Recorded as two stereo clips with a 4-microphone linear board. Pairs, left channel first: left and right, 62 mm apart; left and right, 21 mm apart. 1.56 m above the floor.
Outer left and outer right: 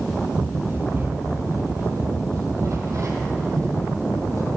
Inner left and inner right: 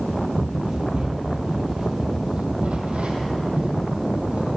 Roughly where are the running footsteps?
Right.